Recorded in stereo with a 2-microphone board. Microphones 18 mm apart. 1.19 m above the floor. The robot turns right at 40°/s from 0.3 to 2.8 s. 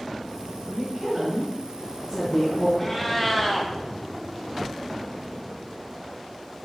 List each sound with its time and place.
0.7 s a woman speaking: 45° right, 1.6 m; by 2.7 s 35° left, 1.6 m
2.8 s a cat meowing: 15° left (ahead or behind), 0.6 m